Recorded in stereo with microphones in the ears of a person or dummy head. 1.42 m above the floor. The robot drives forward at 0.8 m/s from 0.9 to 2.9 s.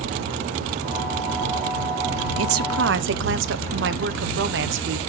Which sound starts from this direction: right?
A woman speaking, at 2.4 s.